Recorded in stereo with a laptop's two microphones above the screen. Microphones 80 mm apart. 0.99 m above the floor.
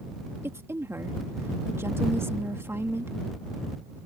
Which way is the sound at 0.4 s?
35° right (ahead or behind).